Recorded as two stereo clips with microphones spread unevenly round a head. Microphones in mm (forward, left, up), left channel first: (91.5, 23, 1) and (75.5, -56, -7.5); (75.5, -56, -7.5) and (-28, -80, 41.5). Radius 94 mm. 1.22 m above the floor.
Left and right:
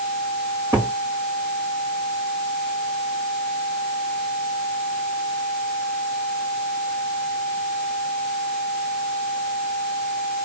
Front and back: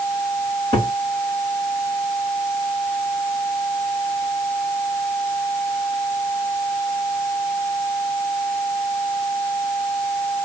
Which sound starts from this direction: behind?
A cupboard door, at 0.7 s.